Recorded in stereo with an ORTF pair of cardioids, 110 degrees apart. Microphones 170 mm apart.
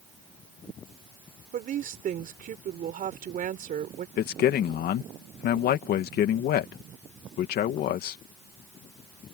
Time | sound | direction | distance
1.5 | a woman speaking | 55° right | ?
4.2 | a man speaking | 65° left | ?